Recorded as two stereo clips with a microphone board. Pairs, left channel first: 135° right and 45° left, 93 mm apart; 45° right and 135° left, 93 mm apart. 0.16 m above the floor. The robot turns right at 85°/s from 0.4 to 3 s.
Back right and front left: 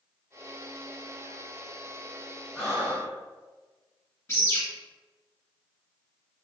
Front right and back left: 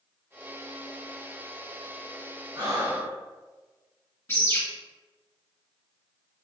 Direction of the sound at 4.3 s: 90° right.